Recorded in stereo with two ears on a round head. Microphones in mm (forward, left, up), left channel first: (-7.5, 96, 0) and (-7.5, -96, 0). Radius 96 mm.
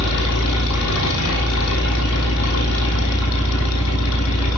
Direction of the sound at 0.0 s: 85° left.